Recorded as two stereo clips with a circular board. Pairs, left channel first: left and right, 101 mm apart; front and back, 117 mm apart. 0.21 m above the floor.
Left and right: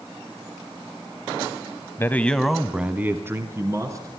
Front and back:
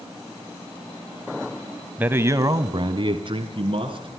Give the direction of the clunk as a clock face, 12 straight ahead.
I don't hear a clunk.